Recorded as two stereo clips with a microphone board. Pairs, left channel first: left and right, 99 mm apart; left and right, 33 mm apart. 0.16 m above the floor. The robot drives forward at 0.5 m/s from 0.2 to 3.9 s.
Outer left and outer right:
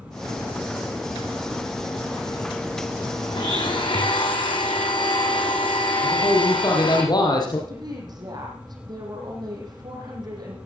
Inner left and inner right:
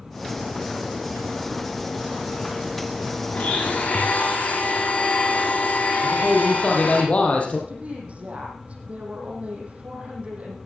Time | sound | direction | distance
3.3 | a blender | 50° left (ahead or behind) | 4 m
6.0 | a man speaking | 45° left (ahead or behind) | 5 m
7.7 | a woman speaking | 45° right (ahead or behind) | 7.5 m